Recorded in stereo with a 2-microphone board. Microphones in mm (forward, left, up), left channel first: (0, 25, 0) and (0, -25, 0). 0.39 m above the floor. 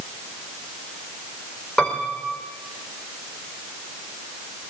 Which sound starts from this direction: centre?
A piano, at 1.8 s.